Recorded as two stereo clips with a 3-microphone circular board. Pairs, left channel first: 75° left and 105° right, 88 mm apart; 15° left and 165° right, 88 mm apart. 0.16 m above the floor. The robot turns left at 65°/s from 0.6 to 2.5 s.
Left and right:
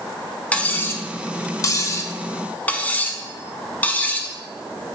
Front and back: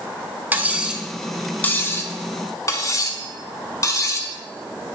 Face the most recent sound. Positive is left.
turn(degrees=15)